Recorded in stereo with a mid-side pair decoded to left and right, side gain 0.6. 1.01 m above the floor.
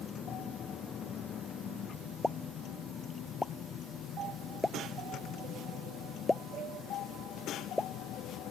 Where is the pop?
10° left.